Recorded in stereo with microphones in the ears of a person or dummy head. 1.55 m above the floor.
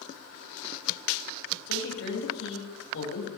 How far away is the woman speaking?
About 7 m.